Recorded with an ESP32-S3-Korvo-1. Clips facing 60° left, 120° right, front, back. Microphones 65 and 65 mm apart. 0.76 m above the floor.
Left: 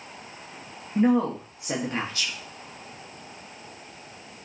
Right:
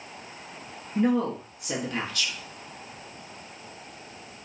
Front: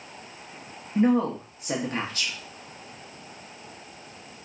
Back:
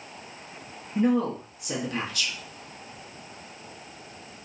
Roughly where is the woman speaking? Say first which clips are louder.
Left 3 dB, front 2 dB; ahead.